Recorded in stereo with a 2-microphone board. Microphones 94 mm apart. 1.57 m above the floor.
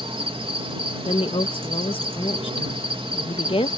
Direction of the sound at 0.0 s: 75° right (ahead or behind).